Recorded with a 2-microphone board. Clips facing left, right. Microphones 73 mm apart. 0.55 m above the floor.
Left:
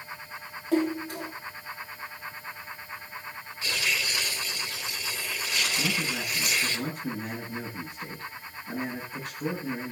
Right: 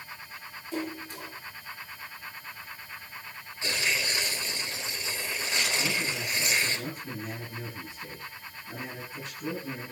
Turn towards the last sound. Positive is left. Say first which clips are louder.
# left 1 dB
turn(degrees=65)  # may be behind; listen again after turning